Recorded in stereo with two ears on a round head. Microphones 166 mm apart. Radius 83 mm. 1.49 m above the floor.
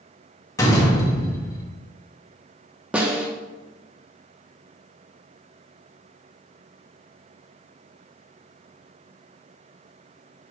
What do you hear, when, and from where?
0.6 s a door slam: 20° left (ahead or behind), 0.8 m
2.9 s a snare drum: 5° right (ahead or behind), 0.5 m